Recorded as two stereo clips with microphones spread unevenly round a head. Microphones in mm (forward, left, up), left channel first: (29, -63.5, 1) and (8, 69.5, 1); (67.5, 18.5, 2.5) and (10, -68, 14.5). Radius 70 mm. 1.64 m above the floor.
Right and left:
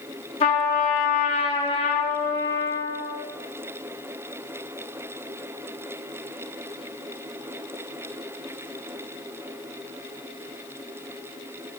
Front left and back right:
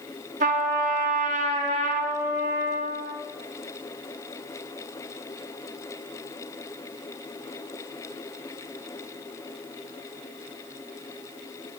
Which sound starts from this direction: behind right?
A trumpet, at 0.4 s.